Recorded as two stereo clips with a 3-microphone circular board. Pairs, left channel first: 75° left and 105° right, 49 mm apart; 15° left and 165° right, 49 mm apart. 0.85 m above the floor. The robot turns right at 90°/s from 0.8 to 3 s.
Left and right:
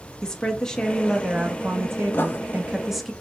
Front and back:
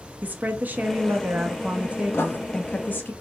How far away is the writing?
About 0.6 m.